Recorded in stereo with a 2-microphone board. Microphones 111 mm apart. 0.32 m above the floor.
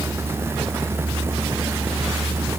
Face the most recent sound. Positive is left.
No sound to turn to.